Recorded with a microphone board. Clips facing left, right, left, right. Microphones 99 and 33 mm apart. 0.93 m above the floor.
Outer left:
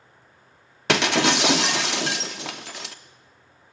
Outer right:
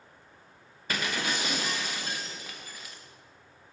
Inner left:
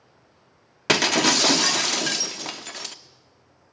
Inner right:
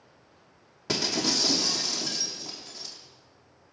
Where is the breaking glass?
80° left, 0.8 m.